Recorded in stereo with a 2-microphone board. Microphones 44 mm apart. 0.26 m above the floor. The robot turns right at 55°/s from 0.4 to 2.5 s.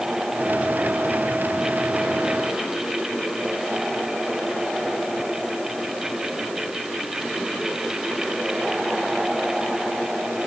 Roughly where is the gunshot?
I don't hear a gunshot.